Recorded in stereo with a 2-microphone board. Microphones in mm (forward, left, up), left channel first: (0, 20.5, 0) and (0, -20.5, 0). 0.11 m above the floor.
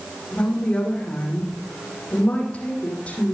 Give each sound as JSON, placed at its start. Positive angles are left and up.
{"t": 0.3, "sound": "a woman speaking", "side_deg": 30, "distance_m": 5.5}